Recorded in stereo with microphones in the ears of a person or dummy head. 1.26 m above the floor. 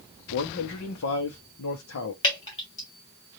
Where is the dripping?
30° left (ahead or behind), 2 m.